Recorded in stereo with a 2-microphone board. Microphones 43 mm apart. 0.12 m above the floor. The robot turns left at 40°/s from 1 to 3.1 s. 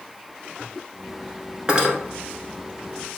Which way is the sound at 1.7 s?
20° right (ahead or behind).